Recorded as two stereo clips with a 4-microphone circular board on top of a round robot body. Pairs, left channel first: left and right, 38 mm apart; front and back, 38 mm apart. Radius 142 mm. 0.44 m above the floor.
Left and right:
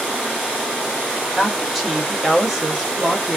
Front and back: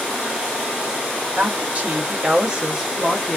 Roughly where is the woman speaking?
Behind.